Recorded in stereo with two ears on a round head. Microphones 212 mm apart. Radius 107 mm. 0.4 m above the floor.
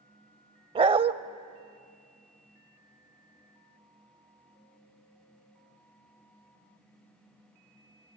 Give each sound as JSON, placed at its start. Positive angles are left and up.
{"t": 0.8, "sound": "a dog barking", "side_deg": -25, "distance_m": 0.6}